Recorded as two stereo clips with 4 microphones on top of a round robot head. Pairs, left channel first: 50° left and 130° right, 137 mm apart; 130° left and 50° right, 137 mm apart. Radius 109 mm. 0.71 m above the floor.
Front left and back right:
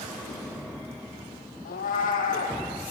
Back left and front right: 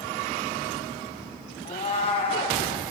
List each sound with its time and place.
1.6 s a cat meowing: 80° left, 2.5 m